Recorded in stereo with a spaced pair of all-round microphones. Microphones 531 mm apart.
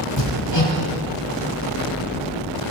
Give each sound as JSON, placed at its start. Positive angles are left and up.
{"t": 0.2, "sound": "hammering", "side_deg": 55, "distance_m": 7.0}